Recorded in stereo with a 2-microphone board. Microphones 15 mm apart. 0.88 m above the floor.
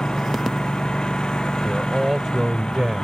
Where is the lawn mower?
70° left (ahead or behind); by 3.0 s 75° left (ahead or behind).